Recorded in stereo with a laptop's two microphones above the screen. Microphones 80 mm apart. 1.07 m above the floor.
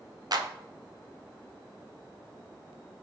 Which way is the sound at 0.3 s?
55° right (ahead or behind).